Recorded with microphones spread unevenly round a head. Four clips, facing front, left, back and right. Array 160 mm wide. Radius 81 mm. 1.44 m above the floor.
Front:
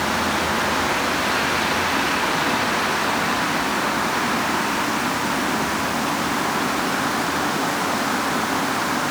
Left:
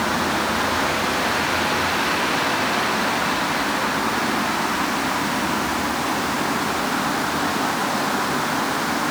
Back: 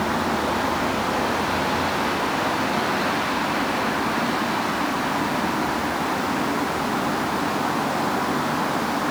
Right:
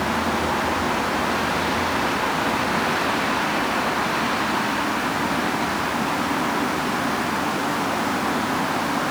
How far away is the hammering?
I don't hear hammering.